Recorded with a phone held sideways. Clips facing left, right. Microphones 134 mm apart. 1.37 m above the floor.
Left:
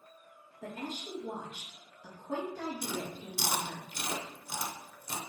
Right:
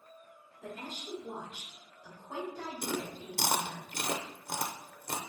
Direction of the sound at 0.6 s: 80° left.